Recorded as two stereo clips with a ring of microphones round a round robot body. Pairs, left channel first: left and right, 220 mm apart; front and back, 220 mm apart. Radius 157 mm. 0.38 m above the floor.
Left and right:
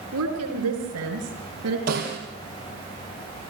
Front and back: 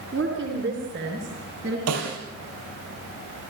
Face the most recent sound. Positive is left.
turn(degrees=-155)